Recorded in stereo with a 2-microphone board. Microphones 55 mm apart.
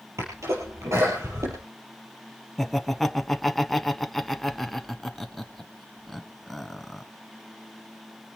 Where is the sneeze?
65° right (ahead or behind), 4 m.